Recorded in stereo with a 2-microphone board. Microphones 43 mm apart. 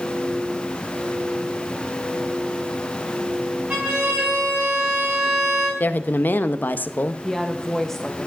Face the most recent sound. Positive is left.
turn(degrees=10)  # may be behind; listen again after turning